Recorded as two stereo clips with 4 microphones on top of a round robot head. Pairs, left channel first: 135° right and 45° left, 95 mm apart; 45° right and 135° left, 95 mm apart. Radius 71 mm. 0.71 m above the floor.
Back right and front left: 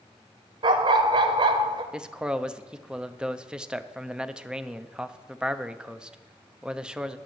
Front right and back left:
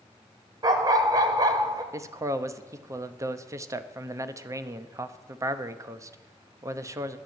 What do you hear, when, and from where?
0.6 s a dog barking: 80° left, 1.1 m
1.9 s a man speaking: 115° left, 0.8 m